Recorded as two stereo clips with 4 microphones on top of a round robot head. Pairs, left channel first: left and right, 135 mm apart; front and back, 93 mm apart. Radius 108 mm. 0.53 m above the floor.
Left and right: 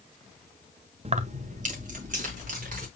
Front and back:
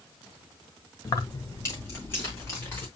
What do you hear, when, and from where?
1.1 s keys jangling: 50° right, 0.7 m; by 2.9 s 70° right, 3.5 m